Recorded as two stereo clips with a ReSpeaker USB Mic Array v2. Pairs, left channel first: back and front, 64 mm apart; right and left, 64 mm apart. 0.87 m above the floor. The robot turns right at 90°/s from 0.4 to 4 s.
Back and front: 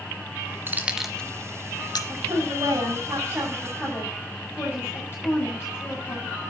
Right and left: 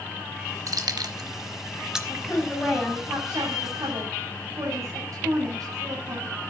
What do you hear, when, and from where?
0.7 s keys jangling: 55° left, 1.7 m; by 2.0 s 175° left, 1.7 m
2.1 s a woman speaking: 50° right, 7 m; by 6.4 s 125° left, 7 m